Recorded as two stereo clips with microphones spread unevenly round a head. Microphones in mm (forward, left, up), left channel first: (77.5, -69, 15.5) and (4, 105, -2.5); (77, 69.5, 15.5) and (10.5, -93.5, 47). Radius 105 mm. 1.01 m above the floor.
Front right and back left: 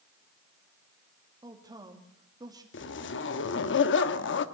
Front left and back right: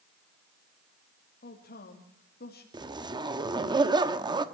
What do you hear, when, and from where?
1.4 s a man speaking: 45° left, 2 m
2.7 s a zipper: 45° right, 1.2 m